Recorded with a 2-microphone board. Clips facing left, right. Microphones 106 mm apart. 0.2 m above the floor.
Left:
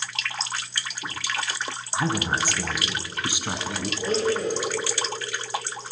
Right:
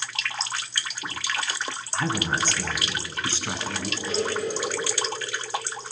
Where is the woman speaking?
15° left (ahead or behind), 2.5 m.